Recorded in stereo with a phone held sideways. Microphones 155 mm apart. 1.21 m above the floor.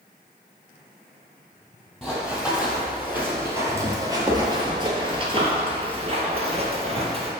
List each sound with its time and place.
2.0 s running footsteps: 5° right (ahead or behind), 2 m; by 7.3 s 40° right (ahead or behind), 1.9 m